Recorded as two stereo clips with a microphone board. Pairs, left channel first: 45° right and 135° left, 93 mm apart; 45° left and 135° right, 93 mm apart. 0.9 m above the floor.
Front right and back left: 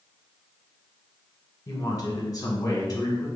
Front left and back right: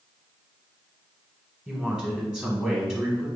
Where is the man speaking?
60° right, 1.0 m.